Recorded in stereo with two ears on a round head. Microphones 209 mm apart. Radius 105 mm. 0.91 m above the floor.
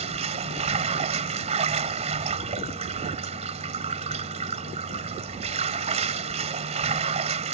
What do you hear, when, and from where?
0.0 s running water: 30° right (ahead or behind)